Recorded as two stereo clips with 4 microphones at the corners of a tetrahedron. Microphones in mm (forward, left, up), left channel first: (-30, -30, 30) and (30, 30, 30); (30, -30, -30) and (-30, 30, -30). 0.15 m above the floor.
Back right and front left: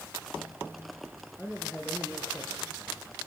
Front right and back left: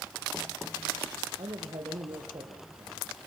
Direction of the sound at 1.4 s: 140° left.